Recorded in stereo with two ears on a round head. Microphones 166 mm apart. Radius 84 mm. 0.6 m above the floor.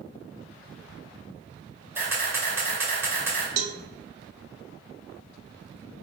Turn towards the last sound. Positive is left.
turn(degrees=-45)  # may be behind; listen again after turning